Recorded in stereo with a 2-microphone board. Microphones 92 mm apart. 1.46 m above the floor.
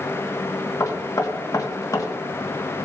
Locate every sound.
0.8 s knocking: 40° left (ahead or behind), 1.5 m